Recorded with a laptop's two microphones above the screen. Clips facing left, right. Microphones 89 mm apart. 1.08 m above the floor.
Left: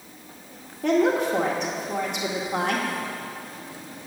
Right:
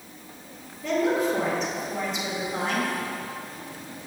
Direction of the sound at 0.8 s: 65° left (ahead or behind).